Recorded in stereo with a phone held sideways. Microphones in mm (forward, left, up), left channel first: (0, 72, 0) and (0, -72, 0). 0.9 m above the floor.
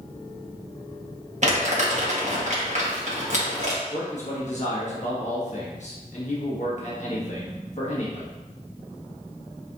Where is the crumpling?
55° right (ahead or behind), 1.3 m.